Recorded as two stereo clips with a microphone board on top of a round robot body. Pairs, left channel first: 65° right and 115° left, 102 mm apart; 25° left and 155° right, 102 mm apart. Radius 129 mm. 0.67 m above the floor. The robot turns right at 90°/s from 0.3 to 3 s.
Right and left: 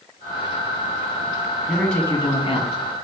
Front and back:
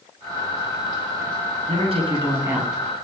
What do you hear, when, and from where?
1.7 s a man speaking: 170° right, 1.4 m; by 2.8 s 65° right, 1.4 m